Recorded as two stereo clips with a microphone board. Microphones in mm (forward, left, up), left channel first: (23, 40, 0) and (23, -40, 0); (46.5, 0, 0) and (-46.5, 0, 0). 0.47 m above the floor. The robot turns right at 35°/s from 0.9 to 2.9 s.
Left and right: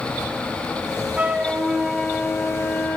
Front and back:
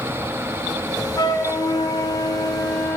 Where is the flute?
25° right, 0.7 m; by 3.0 s 35° left, 0.7 m.